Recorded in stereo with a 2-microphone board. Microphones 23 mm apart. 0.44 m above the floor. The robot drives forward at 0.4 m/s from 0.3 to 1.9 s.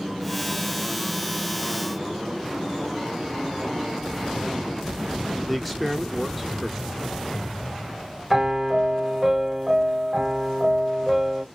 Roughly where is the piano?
Centre.